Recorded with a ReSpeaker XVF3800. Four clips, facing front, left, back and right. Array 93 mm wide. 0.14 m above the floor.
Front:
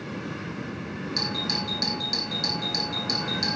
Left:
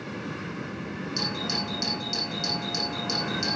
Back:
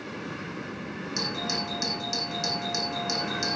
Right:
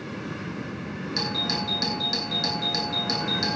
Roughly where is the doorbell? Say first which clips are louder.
Right 3 dB, even; right.